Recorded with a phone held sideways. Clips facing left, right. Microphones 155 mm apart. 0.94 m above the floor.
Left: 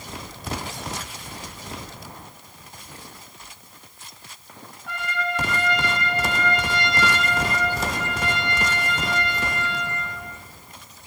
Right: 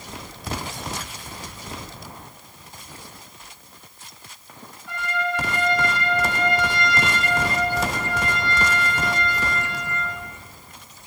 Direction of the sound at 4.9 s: 65° left (ahead or behind).